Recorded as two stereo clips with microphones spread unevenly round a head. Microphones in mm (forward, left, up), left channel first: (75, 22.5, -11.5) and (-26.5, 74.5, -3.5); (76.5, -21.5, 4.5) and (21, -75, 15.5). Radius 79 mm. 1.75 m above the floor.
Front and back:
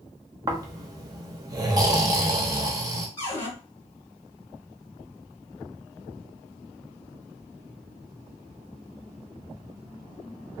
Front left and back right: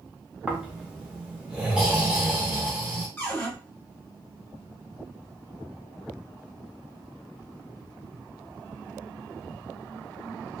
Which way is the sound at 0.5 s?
160° left.